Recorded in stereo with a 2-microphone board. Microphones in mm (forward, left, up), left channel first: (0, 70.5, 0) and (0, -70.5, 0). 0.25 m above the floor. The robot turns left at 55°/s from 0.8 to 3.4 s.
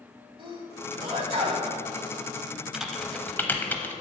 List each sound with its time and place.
0.4 s a sneeze: 55° right, 1.3 m; by 1.7 s 105° right, 1.3 m
2.7 s typing on a keyboard: 5° right (ahead or behind), 0.6 m; by 3.9 s 15° left (ahead or behind), 0.6 m